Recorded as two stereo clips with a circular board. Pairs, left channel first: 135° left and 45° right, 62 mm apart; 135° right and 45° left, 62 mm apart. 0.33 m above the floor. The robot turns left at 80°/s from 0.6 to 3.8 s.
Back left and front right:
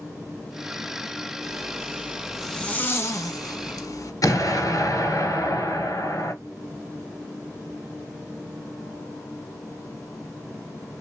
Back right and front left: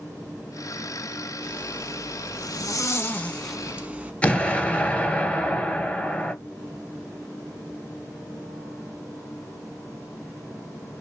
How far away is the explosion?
About 1.0 m.